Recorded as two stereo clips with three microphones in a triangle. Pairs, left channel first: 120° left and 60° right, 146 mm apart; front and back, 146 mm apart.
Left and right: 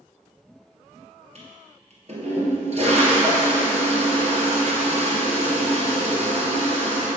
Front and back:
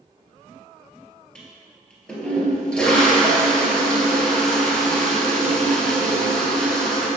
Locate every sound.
1.4 s a toilet flushing: 80° right, 2 m